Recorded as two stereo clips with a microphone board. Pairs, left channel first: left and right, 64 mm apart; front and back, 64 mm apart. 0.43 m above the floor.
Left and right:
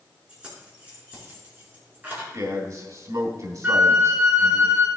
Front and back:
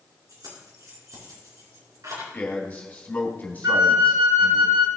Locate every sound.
0.3 s keys jangling: 165° right, 4.5 m; by 2.2 s 150° right, 4.5 m
2.3 s a man speaking: 65° right, 3.5 m
3.6 s a flute: 155° right, 1.5 m